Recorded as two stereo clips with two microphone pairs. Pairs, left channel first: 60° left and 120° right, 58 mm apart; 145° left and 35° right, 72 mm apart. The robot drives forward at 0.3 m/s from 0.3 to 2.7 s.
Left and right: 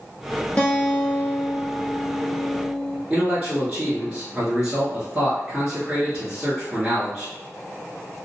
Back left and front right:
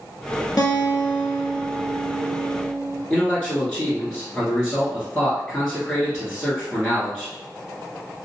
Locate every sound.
0.6 s a guitar: 120° left, 1.1 m; by 3.0 s 145° left, 1.5 m
3.1 s a man speaking: 160° right, 1.2 m